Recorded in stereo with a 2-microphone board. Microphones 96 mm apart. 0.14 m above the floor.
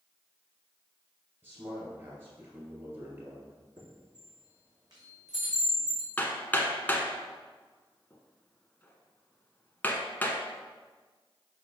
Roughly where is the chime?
Right.